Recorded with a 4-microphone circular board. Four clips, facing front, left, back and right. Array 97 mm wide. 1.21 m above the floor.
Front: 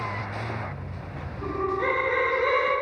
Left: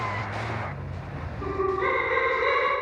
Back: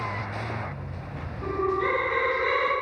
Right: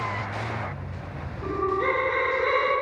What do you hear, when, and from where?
1.4 s laughter: 55° left, 1.6 m; by 2.7 s 10° left, 1.4 m